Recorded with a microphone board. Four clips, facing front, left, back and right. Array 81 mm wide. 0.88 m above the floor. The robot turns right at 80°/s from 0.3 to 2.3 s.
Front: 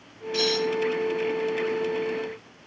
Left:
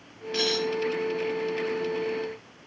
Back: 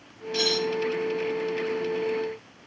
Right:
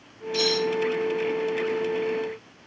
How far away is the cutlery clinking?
About 0.5 m.